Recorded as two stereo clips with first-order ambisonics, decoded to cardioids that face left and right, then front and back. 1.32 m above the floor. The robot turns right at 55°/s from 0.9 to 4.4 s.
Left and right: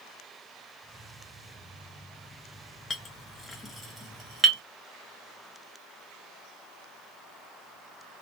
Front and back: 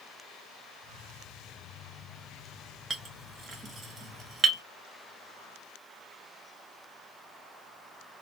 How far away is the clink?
About 0.5 m.